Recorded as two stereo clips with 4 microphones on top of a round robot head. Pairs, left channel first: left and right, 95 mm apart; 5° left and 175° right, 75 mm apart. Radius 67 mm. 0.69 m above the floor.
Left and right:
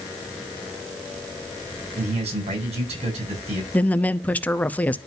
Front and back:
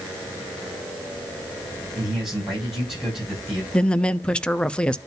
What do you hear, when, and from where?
1.9 s a man speaking: 85° right, 7 m
3.7 s a woman speaking: 55° left, 0.6 m